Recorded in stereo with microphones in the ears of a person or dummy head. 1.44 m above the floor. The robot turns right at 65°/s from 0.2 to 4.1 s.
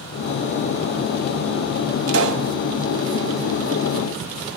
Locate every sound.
2.1 s a pop: 80° right, 1.5 m; by 2.5 s 60° right (ahead or behind), 1.5 m